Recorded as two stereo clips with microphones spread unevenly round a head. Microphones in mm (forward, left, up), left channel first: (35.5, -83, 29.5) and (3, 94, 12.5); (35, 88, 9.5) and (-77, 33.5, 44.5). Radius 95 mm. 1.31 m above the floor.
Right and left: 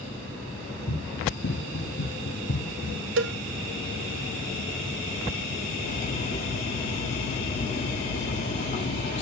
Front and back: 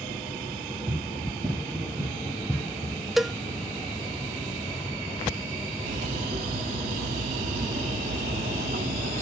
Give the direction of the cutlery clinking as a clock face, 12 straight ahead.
4 o'clock.